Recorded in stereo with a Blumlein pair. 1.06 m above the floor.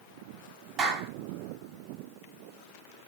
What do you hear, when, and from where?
0.8 s a clap: 25° right, 10 m